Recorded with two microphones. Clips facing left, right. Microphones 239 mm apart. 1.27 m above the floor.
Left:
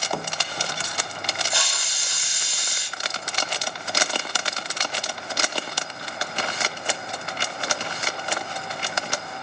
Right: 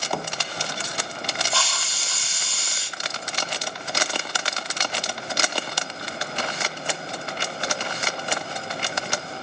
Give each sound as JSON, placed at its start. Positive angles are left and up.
{"t": 1.5, "sound": "a hiss", "side_deg": 15, "distance_m": 2.0}